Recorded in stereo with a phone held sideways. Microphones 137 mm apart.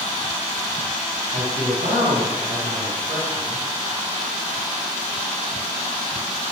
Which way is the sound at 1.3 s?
80° right.